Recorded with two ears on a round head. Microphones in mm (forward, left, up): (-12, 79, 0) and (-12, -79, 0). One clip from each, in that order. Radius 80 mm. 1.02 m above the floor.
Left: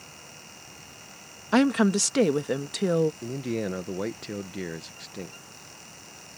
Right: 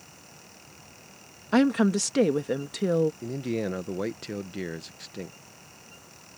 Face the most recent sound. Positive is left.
turn(degrees=0)  # may be behind; listen again after turning